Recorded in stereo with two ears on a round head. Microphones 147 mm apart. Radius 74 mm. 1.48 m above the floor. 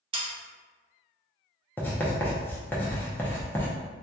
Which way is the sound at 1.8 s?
10° left (ahead or behind).